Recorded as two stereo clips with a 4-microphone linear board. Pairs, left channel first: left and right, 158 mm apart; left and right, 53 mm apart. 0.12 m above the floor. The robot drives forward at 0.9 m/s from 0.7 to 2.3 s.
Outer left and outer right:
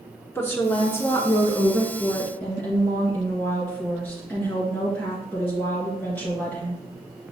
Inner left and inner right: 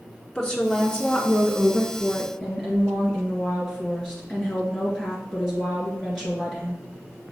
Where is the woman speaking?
15° left (ahead or behind), 1.4 m; by 6.8 s 10° left (ahead or behind), 1.8 m.